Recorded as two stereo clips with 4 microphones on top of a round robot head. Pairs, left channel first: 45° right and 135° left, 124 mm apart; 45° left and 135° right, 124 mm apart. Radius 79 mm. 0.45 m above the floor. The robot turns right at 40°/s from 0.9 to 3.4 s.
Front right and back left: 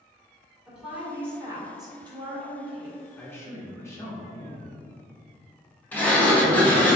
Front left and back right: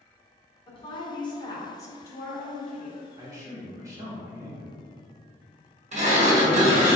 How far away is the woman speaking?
About 1.6 m.